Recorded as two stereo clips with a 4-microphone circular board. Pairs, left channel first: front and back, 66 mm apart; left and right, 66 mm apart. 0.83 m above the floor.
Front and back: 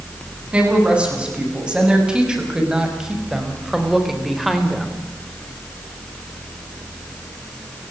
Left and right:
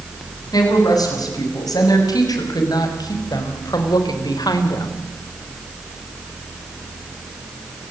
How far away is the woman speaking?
About 9 m.